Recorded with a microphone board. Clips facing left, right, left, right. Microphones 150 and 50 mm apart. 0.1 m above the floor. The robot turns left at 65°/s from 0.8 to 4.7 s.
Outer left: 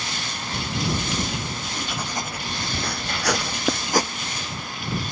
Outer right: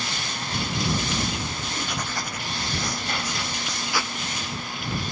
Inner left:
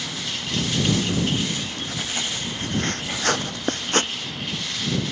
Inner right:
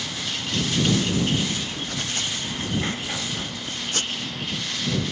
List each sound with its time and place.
1.5 s writing: 155° right; by 4.1 s 30° left